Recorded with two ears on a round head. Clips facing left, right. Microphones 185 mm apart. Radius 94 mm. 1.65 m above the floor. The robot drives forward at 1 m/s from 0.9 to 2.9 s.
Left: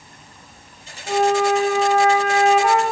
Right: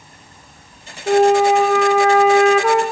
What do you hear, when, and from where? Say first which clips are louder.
1.1 s a flute: right 5 dB; 45° right (ahead or behind), 5.5 m; by 2.8 s 60° right (ahead or behind), 4.5 m